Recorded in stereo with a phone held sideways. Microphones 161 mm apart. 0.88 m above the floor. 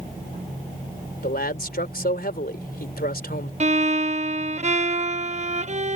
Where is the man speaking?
75° left (ahead or behind).